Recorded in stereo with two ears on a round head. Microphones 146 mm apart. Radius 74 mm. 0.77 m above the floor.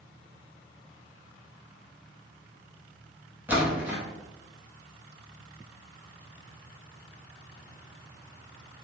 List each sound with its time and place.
3.5 s a splash: 10° right (ahead or behind), 0.8 m